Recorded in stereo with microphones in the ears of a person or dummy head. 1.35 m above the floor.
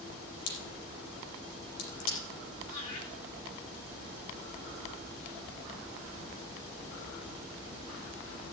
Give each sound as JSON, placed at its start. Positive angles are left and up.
{"t": 0.5, "sound": "a crack", "side_deg": 75, "distance_m": 5.5}
{"t": 2.7, "sound": "laughter", "side_deg": 90, "distance_m": 9.5}